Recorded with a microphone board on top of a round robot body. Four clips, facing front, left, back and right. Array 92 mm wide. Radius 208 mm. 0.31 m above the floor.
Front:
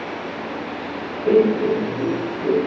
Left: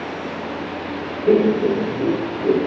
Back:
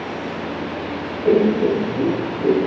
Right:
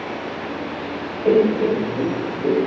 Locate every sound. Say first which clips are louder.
1.2 s laughter: even, even; 95° right, 3.5 m; by 2.6 s 125° right, 3 m